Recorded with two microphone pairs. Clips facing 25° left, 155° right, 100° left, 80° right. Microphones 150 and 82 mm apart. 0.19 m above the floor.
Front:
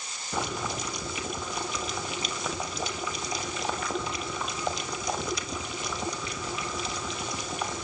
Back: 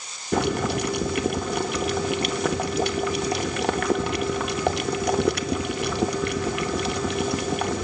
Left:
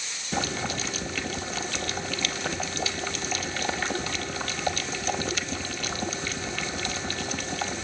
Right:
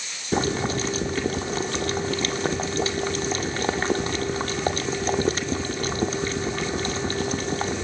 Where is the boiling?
135° right, 0.9 m.